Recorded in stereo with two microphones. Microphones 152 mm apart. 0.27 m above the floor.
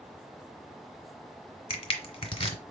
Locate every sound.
1.7 s crushing: 40° left (ahead or behind), 1.2 m